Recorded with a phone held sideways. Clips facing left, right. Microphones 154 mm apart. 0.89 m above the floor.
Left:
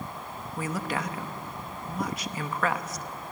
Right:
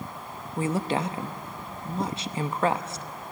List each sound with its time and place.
0.6 s a woman speaking: 25° right (ahead or behind), 0.7 m